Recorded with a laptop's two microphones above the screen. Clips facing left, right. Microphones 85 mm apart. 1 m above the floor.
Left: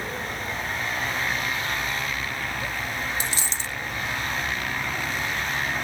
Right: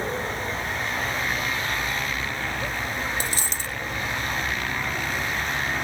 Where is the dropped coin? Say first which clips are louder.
Right 1 dB; 45° right (ahead or behind).